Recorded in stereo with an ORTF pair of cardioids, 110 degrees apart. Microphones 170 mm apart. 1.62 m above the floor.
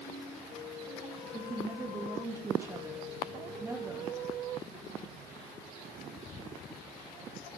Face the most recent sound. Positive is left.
turn(degrees=-15)